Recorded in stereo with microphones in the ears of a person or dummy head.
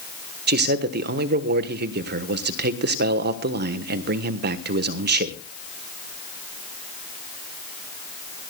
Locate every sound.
0.5 s a man speaking: 50° right (ahead or behind), 1.2 m